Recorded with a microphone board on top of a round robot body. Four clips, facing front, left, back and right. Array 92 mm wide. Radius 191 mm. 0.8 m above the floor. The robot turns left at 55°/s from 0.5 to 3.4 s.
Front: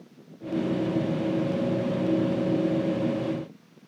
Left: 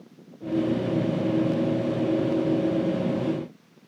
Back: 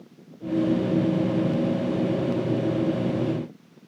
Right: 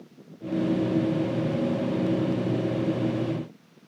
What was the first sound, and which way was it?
Only background noise.